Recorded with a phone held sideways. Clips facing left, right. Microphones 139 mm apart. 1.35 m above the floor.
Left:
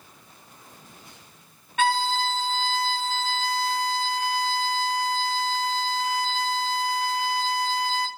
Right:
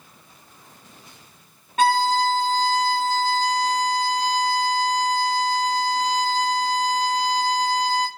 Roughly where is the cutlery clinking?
No cutlery clinking in this recording.